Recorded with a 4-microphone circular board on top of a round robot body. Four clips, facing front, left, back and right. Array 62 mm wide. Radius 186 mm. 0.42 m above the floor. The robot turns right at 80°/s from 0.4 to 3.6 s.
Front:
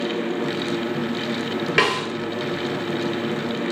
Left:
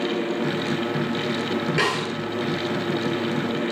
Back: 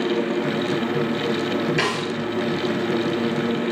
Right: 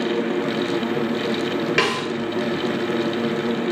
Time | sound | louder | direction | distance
1.8 | a snare drum | right 2 dB, front 3 dB | 20° right | 3 m